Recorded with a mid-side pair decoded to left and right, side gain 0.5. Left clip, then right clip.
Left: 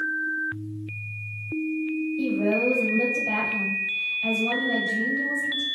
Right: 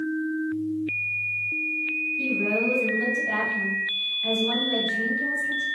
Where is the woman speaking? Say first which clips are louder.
Left 3 dB; 70° left, 1.3 m.